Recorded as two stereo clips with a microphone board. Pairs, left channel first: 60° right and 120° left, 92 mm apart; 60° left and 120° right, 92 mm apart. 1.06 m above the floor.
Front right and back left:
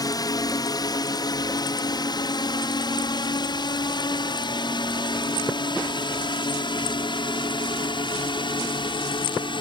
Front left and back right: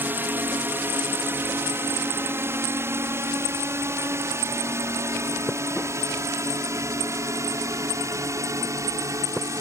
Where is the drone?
65° right; by 9.6 s 70° right.